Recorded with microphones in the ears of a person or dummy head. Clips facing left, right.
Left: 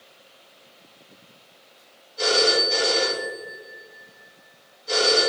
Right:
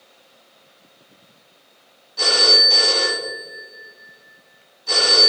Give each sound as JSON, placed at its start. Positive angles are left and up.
{"t": 2.2, "sound": "a phone ringing", "side_deg": -65, "distance_m": 1.7}